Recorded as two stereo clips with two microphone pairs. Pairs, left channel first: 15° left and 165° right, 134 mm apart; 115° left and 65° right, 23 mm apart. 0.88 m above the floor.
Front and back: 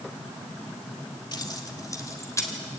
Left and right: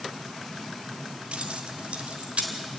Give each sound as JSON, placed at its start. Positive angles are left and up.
{"t": 1.3, "sound": "keys jangling", "azimuth_deg": -40, "distance_m": 1.7}